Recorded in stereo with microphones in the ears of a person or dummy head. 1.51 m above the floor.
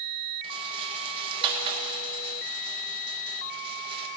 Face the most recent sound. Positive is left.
turn(degrees=-30)  # may be behind; listen again after turning